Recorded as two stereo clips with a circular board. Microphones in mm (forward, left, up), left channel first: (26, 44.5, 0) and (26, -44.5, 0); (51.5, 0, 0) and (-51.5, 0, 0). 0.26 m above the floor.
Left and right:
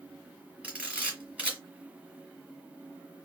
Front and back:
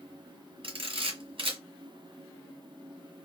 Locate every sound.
0.6 s a camera shutter: 165° right, 2 m